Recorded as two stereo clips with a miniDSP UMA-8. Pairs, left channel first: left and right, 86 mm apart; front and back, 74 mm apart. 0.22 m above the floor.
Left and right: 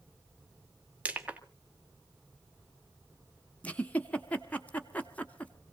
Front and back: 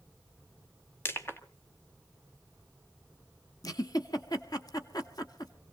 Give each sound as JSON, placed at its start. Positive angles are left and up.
{"t": 1.1, "sound": "crushing", "azimuth_deg": -25, "distance_m": 1.3}
{"t": 3.6, "sound": "a giggle", "azimuth_deg": 20, "distance_m": 0.9}